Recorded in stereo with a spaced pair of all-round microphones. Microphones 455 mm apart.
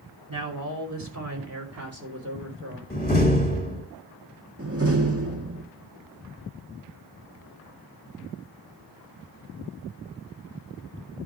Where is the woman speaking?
45° right (ahead or behind), 3 m; by 2.8 s 25° right (ahead or behind), 4 m.